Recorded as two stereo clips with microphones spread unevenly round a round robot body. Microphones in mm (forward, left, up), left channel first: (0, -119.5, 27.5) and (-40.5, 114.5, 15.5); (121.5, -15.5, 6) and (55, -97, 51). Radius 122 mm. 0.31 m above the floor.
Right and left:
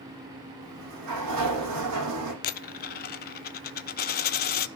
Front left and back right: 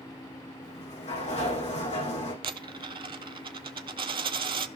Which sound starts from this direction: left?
A sliding door, at 0.6 s.